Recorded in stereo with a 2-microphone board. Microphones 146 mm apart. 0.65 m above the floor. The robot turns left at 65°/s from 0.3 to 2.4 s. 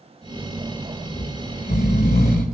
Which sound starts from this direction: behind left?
Snoring, at 1.1 s.